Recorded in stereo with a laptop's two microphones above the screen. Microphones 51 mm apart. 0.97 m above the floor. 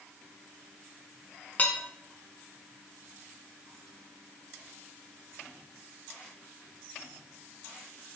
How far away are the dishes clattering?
About 1.8 m.